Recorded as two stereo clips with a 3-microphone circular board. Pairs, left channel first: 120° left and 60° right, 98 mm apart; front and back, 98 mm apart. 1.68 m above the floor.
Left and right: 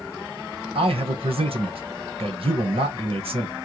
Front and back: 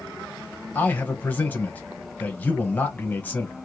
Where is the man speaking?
75° right, 1.4 m.